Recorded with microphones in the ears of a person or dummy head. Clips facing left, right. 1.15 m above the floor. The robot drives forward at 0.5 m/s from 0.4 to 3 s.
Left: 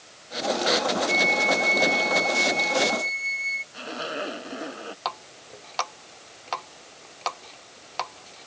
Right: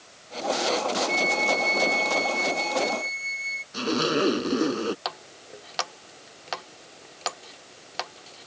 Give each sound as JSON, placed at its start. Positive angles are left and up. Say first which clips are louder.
{"t": 1.1, "sound": "a flute", "louder": "left 1 dB", "side_deg": -10}
{"t": 3.7, "sound": "a zipper", "louder": "right 9 dB", "side_deg": -65}
{"t": 5.0, "sound": "a running tap", "louder": "left 2 dB", "side_deg": -15}